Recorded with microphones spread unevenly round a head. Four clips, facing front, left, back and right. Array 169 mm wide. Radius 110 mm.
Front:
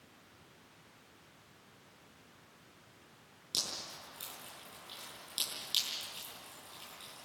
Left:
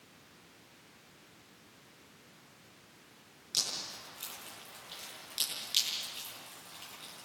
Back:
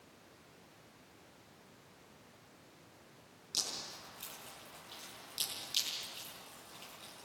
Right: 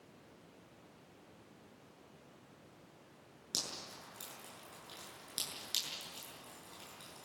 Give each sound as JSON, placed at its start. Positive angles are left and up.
{"t": 3.5, "sound": "dripping", "azimuth_deg": -80, "distance_m": 8.0}